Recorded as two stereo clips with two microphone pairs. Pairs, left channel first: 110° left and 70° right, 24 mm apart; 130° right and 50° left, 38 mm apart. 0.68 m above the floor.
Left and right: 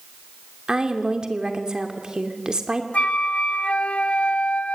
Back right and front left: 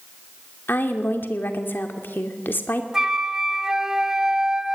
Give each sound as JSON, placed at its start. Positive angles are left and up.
{"t": 0.7, "sound": "a woman speaking", "azimuth_deg": -120, "distance_m": 2.0}
{"t": 2.9, "sound": "a flute", "azimuth_deg": 130, "distance_m": 0.9}